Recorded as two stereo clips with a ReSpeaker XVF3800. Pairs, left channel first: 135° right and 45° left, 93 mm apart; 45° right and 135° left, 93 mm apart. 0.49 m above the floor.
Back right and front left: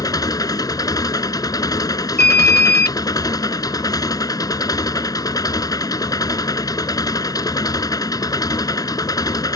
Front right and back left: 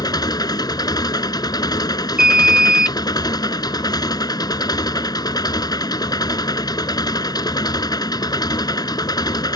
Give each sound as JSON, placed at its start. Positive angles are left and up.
{"t": 0.0, "sound": "an engine running", "azimuth_deg": -90}
{"t": 2.2, "sound": "an alarm", "azimuth_deg": -150}